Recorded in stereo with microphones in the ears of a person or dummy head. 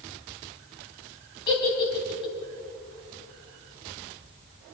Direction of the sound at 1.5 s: 25° left (ahead or behind).